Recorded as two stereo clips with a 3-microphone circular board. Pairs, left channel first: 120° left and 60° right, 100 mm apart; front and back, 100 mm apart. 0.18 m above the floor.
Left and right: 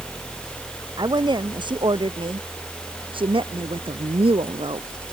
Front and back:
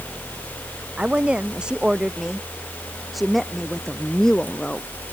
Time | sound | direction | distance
1.0 | a woman speaking | 100° right | ?